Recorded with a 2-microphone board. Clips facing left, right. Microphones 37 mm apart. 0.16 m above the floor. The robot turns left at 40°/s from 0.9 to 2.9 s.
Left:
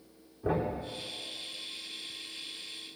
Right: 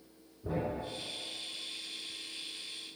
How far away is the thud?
About 4.5 m.